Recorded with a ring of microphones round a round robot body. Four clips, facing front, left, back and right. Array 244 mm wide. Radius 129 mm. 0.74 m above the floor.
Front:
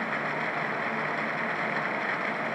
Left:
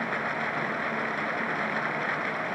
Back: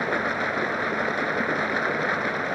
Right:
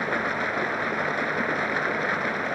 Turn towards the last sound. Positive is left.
turn(degrees=-150)